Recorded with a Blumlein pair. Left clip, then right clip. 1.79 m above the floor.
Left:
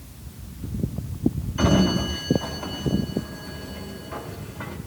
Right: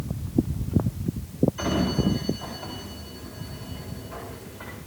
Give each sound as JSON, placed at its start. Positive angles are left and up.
{"t": 1.6, "sound": "a sliding door", "azimuth_deg": 25, "distance_m": 3.5}